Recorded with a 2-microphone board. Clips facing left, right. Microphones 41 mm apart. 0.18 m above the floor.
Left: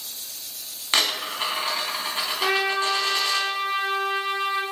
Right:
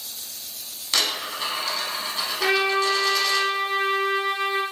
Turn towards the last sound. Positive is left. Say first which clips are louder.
# right 2 dB
turn(degrees=-70)  # may be behind; listen again after turning